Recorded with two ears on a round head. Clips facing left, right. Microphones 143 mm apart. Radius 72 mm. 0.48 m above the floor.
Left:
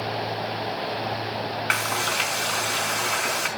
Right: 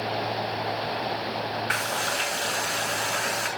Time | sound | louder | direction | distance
1.7 | frying | left 1 dB | 65° left (ahead or behind) | 5 m